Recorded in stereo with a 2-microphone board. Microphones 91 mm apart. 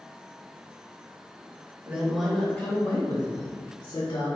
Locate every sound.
1.9 s a woman speaking: 20° right (ahead or behind), 0.9 m; by 4.3 s 65° left (ahead or behind), 1.8 m